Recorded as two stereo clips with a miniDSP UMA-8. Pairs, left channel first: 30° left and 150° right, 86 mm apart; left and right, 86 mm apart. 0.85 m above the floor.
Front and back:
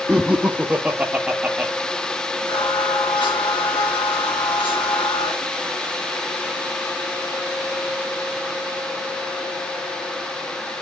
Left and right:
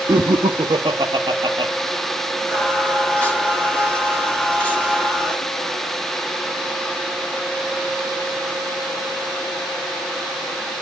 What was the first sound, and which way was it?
Laughter, 75° right.